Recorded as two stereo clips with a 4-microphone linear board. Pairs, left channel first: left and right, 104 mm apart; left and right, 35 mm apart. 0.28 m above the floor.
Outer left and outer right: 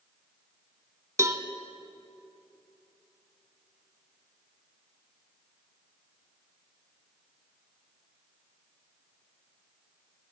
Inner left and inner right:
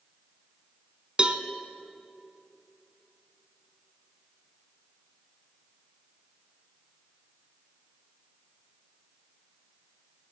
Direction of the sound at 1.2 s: 30° right (ahead or behind).